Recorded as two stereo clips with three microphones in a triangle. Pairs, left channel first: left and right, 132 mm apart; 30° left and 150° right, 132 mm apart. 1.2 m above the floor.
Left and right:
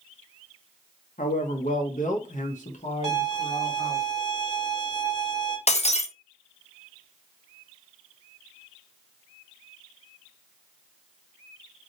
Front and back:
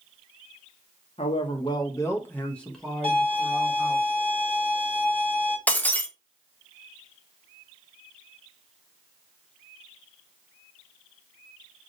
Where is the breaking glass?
105° left, 0.5 m.